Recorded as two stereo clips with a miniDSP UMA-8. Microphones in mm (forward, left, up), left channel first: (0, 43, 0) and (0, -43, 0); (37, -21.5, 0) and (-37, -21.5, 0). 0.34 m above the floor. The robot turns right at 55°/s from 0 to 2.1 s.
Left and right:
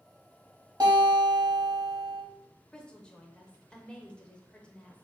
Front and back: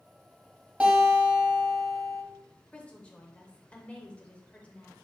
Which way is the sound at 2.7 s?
30° left.